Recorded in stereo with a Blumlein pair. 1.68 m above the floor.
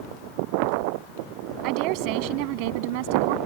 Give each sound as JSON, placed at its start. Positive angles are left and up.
{"t": 1.6, "sound": "a woman speaking", "azimuth_deg": -40}